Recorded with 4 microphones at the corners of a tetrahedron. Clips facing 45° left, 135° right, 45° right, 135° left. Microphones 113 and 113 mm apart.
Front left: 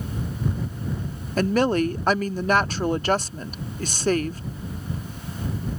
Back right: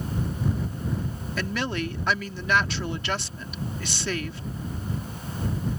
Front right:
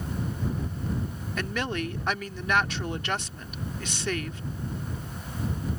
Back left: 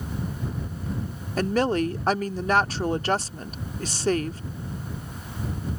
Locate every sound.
1.4 s a woman speaking: 85° left